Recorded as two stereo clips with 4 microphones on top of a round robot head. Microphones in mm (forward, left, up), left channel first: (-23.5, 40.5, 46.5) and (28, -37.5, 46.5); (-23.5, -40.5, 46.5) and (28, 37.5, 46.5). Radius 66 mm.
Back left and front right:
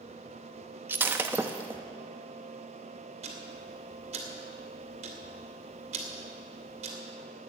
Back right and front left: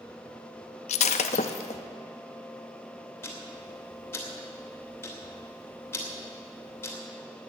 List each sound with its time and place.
0.9 s breaking glass: 125° right, 0.7 m
3.2 s ticking: 55° right, 2.5 m